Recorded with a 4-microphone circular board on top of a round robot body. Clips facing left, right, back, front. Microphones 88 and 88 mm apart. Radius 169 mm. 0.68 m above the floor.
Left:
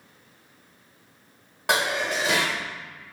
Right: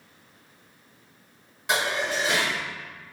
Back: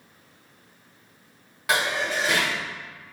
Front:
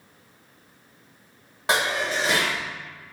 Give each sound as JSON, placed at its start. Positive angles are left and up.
{"t": 1.7, "sound": "dishes clattering", "azimuth_deg": 60, "distance_m": 0.9}